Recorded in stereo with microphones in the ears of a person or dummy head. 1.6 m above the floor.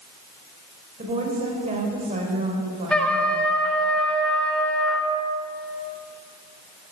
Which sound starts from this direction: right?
A woman speaking, at 1.0 s.